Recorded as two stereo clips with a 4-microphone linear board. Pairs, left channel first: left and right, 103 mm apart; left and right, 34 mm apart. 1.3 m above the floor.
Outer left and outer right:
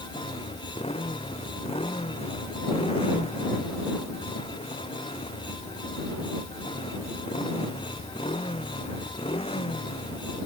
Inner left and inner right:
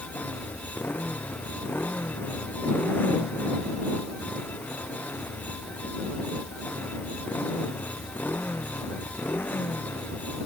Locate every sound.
0.0 s a motorcycle: 65° left (ahead or behind)